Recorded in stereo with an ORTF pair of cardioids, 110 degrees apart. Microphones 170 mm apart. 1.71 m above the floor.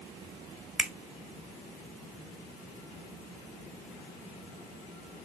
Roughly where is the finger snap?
Ahead.